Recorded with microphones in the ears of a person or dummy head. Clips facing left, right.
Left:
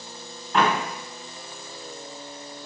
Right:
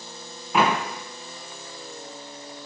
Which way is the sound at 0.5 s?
10° right (ahead or behind).